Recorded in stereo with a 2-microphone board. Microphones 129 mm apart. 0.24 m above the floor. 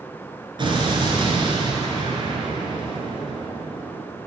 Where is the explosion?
40° right (ahead or behind), 3 m.